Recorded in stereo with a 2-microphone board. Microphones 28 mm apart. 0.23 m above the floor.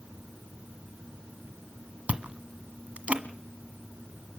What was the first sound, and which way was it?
Chewing, 55° right (ahead or behind).